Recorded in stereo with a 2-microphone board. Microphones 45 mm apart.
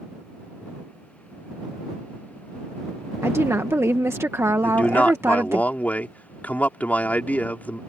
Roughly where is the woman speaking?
Right.